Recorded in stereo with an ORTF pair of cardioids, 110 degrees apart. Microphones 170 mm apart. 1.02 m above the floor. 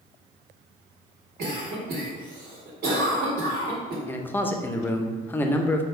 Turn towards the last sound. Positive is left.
turn(degrees=10)